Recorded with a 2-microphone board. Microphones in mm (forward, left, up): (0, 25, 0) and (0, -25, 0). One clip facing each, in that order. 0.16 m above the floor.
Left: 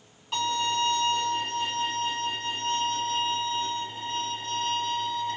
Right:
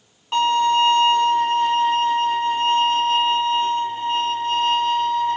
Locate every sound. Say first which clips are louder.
0.3 s a violin: right 10 dB; 45° right (ahead or behind), 2 m